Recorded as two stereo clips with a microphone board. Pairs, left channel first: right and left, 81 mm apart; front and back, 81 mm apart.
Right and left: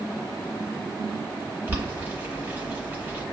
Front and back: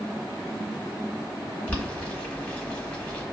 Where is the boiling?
55° left, 1.2 m.